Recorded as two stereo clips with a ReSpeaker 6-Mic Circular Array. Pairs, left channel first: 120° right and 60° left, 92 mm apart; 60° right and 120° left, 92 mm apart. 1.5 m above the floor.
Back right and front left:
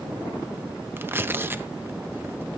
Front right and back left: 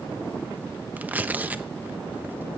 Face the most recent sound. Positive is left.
turn(degrees=75)